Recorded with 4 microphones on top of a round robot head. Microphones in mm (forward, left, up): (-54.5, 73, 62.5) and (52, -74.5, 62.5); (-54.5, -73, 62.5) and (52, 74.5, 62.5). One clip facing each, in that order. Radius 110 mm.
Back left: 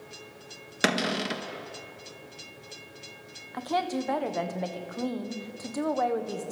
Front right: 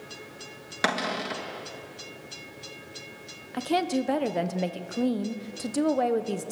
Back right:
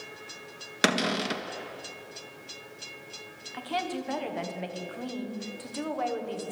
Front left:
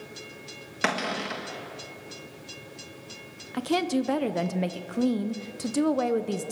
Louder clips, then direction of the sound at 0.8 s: Back left 2 dB, back right 3 dB; 175° right.